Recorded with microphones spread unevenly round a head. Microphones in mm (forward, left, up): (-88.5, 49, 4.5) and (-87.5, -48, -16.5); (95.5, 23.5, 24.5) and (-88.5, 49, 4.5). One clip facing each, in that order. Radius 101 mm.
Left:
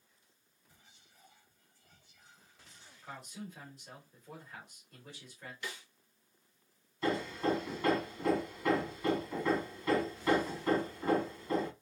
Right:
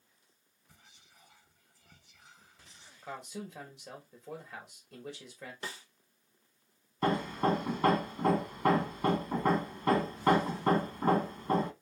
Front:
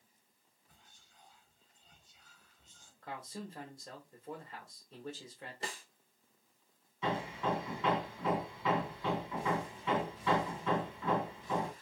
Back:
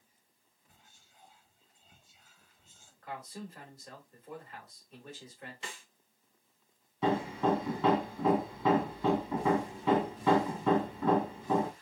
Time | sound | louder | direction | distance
0.7 | whispering | right 3 dB, back 2 dB | 105° right | 1.5 m
3.0 | a man speaking | right 4 dB, back 1 dB | 75° right | 2.5 m
5.6 | a snare drum | even, front 3 dB | 30° right | 0.7 m
7.0 | hammering | right 3 dB, back 7 dB | 130° right | 1.2 m